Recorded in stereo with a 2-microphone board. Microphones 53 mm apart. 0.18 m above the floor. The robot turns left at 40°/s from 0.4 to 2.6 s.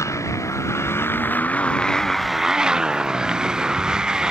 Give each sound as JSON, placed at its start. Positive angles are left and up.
{"t": 0.0, "sound": "a motorcycle", "azimuth_deg": 75}